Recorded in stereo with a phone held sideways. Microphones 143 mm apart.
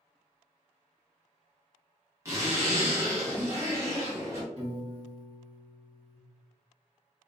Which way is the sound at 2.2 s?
20° right (ahead or behind).